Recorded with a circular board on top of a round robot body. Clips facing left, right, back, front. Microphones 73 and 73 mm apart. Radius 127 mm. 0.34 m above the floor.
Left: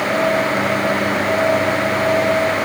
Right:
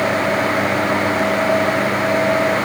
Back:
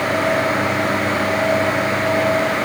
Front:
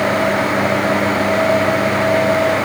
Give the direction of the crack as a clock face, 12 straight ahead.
No crack in this recording.